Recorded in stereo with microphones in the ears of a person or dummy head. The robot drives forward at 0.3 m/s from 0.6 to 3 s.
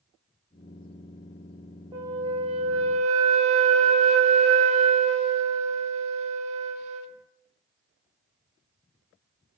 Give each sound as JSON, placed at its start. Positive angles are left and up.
{"t": 1.9, "sound": "a flute", "side_deg": -20, "distance_m": 0.8}